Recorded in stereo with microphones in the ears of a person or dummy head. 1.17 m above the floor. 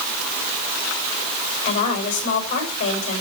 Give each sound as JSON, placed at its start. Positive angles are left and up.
{"t": 1.6, "sound": "a woman speaking", "side_deg": 40, "distance_m": 6.0}